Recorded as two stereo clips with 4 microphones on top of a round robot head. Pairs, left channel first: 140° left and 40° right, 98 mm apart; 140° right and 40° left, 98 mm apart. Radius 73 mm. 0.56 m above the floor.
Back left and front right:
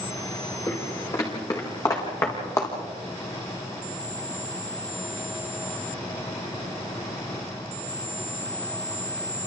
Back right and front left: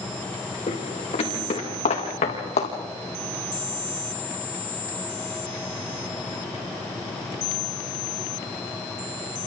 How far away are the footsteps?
About 6.5 m.